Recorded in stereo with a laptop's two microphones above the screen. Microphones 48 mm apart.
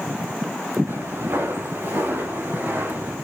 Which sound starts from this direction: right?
Footsteps, at 0.9 s.